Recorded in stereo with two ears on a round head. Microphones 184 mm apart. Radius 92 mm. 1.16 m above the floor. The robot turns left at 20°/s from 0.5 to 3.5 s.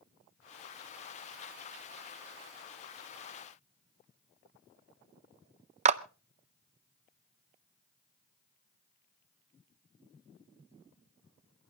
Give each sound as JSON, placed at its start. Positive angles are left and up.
{"t": 5.8, "sound": "a clap", "side_deg": -35, "distance_m": 0.6}